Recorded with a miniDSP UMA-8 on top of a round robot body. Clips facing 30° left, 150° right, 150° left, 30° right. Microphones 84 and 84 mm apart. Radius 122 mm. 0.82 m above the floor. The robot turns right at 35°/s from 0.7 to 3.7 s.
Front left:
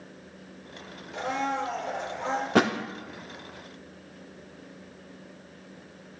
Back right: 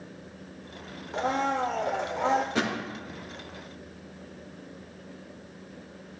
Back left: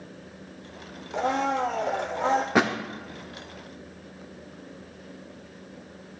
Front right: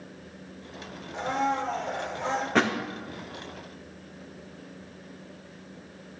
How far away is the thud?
About 0.7 m.